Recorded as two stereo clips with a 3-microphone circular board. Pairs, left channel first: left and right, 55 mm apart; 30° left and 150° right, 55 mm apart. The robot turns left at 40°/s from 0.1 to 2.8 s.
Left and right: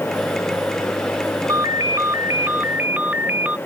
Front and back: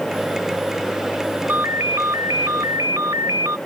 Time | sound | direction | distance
1.5 | a ringtone | 95° right | ?